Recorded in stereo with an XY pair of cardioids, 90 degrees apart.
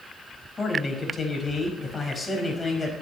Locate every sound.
0.6 s a man speaking: 30° left, 5 m